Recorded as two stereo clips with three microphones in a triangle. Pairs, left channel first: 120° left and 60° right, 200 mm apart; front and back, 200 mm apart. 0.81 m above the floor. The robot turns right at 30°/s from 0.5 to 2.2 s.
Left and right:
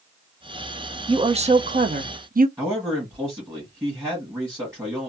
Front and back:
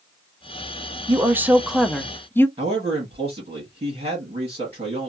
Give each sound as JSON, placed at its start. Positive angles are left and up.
{"t": 1.1, "sound": "a woman speaking", "azimuth_deg": -110, "distance_m": 0.6}
{"t": 2.6, "sound": "a man speaking", "azimuth_deg": -130, "distance_m": 1.4}